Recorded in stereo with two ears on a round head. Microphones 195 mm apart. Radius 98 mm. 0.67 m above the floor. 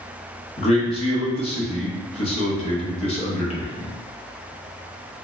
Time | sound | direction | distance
0.6 | a man speaking | 30° left (ahead or behind) | 0.7 m